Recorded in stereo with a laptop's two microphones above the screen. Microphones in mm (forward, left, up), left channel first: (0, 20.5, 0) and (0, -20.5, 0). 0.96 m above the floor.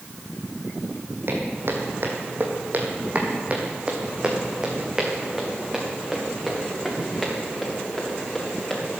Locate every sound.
1.3 s footsteps: 65° right (ahead or behind), 2 m; by 8.7 s 10° left (ahead or behind), 5.5 m